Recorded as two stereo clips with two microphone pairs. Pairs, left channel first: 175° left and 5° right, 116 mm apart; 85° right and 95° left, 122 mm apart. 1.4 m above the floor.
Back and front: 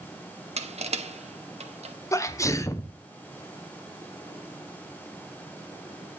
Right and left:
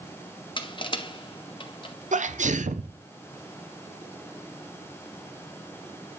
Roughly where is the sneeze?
Left.